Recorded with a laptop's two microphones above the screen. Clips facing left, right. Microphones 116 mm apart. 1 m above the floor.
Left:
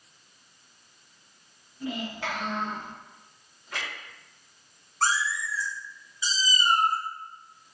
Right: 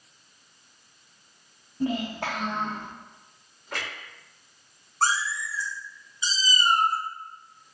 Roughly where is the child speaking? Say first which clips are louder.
Right 5 dB; right.